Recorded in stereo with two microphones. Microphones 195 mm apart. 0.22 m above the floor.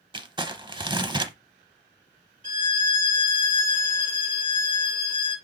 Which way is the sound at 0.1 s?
25° right (ahead or behind).